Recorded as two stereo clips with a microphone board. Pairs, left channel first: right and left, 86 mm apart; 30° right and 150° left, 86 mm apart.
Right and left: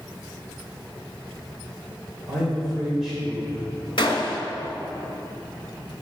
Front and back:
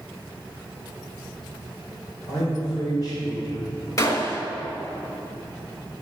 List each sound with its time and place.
2.3 s a man speaking: 5° left, 2.5 m
4.0 s a gunshot: 75° right, 1.8 m